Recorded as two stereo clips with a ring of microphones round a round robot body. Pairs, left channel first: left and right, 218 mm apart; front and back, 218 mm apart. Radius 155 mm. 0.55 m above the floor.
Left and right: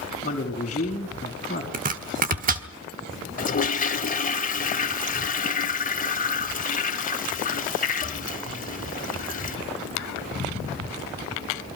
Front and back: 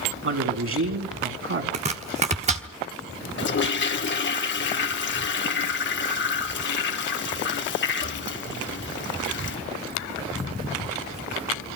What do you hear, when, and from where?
0.2 s a man speaking: 160° left, 4.5 m
1.7 s chopping: 130° right, 1.1 m
3.4 s a toilet flushing: 35° left, 1.6 m